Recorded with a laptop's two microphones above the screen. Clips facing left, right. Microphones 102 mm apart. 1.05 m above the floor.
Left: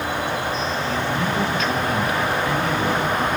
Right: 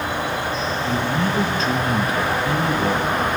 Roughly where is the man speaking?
Right.